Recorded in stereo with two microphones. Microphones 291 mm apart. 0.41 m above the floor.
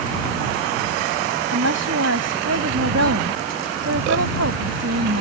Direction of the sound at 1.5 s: 65° right (ahead or behind).